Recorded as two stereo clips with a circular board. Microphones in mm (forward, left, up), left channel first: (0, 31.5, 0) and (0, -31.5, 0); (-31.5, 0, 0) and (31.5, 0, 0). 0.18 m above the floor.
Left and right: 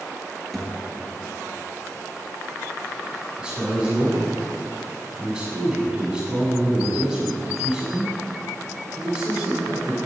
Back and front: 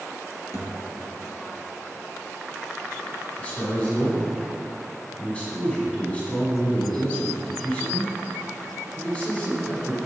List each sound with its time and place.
0.5 s a thud: 175° left, 1.6 m
3.4 s a man speaking: 150° right, 1.5 m